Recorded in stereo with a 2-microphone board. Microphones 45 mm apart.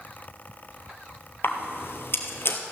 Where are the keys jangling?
No keys jangling in this recording.